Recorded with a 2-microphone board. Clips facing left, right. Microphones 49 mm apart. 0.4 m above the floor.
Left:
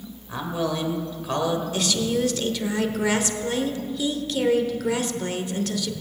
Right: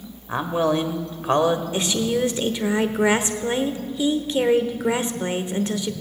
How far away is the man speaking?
About 1.1 m.